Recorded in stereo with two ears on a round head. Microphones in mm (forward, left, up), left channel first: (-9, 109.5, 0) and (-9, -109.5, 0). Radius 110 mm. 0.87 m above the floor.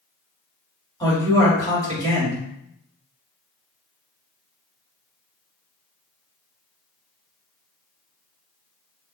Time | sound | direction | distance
1.0 | a man speaking | 15° left (ahead or behind) | 2 m